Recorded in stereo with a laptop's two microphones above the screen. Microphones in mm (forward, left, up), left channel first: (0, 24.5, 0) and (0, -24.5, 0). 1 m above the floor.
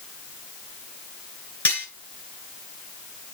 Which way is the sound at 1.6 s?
30° left (ahead or behind).